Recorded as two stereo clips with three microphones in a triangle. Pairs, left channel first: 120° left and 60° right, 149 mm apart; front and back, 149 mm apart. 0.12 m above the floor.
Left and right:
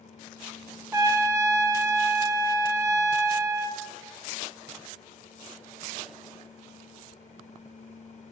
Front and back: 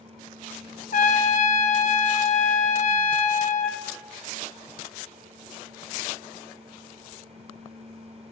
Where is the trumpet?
5° left, 0.6 m.